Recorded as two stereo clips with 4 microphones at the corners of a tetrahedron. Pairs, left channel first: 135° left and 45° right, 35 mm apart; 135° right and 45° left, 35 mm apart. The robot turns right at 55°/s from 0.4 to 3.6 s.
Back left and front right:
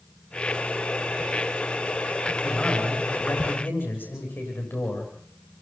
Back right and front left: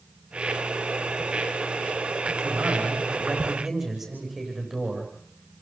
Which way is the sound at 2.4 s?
60° left.